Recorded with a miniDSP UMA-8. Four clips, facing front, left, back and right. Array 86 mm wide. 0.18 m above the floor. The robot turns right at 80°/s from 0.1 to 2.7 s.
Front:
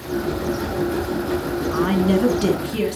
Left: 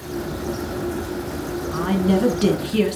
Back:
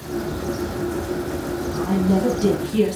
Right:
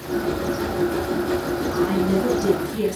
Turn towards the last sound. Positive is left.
turn(degrees=85)